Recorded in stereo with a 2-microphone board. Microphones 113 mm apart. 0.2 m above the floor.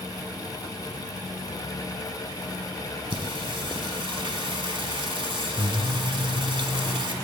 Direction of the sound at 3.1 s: 50° right (ahead or behind).